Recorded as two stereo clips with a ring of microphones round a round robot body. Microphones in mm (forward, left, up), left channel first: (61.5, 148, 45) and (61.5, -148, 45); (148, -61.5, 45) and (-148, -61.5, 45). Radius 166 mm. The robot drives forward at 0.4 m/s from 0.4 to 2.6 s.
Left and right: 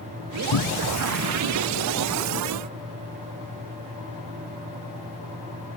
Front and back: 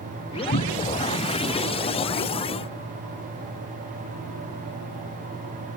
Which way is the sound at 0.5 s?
65° left.